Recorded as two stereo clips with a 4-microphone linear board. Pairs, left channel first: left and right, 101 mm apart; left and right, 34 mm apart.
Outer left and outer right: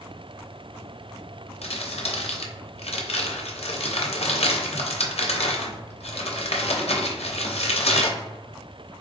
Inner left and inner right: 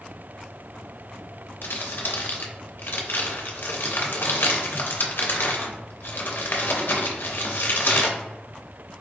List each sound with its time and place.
1.6 s crumpling: 80° left, 0.5 m